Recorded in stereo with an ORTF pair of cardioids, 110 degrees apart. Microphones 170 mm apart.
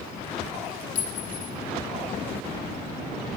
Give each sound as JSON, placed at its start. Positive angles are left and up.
{"t": 0.9, "sound": "a clink", "azimuth_deg": 50, "distance_m": 2.5}